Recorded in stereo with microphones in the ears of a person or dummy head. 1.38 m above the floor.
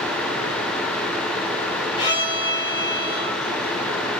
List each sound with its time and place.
2.0 s a violin: 25° left (ahead or behind), 2 m